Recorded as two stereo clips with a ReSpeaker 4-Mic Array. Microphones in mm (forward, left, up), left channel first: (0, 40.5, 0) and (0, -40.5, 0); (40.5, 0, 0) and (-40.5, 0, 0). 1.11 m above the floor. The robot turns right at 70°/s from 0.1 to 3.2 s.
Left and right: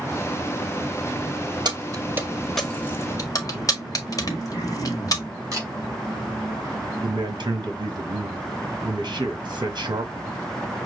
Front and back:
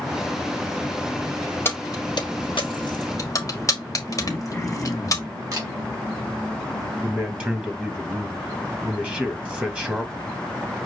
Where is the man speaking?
110° right, 1.2 m.